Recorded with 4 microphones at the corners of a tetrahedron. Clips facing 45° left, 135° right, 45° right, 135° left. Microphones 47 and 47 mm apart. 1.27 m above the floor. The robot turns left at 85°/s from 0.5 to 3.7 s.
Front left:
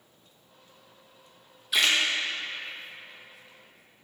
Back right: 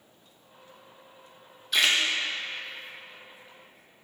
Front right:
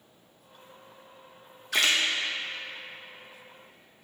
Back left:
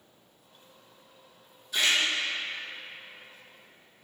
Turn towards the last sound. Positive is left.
turn(degrees=155)